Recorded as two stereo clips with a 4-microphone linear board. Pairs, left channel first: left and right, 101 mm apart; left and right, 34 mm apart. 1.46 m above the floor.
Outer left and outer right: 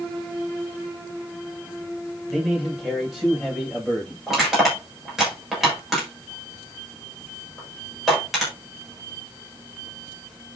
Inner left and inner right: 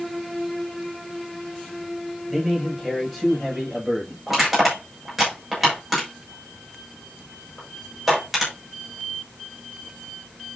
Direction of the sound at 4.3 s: 5° right (ahead or behind).